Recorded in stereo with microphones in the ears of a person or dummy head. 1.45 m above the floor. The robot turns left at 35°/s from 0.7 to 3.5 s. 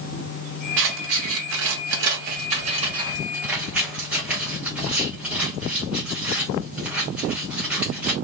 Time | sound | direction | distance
0.8 | scissors | 65° right (ahead or behind) | 0.9 m